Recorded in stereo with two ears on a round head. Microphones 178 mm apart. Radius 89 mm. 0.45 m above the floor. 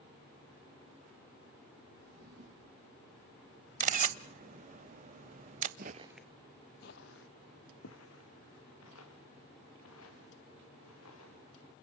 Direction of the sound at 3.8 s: 40° right (ahead or behind).